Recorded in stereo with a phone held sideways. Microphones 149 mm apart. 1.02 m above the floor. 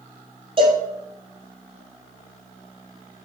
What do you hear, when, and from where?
0.6 s a cowbell: 35° right (ahead or behind), 4.5 m